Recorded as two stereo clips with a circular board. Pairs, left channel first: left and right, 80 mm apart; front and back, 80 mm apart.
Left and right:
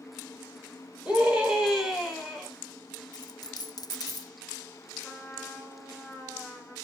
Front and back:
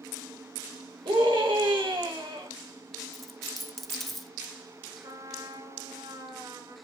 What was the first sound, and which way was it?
A scream, 165° right.